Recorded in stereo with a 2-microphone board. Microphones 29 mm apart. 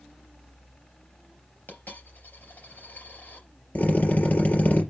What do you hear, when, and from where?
1.7 s a dropped coin: 70° left (ahead or behind), 4 m
3.8 s a drill: 60° left (ahead or behind), 4.5 m